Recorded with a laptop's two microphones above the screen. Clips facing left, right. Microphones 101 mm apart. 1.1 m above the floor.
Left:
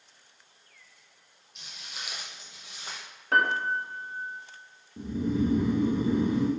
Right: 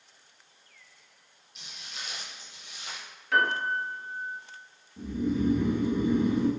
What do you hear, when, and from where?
1.6 s footsteps: centre (ahead or behind), 1.6 m; by 3.0 s 35° left (ahead or behind), 1.5 m
3.3 s a piano: 40° left (ahead or behind), 0.6 m
5.0 s snoring: 30° left (ahead or behind), 0.9 m